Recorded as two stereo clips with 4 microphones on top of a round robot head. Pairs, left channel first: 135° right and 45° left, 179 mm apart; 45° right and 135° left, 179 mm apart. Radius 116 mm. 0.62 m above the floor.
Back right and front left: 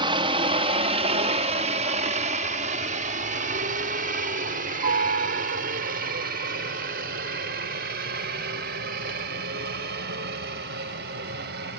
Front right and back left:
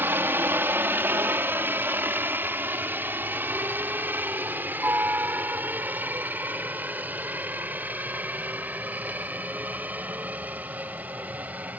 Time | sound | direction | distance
0.0 | a helicopter | 70° left | ?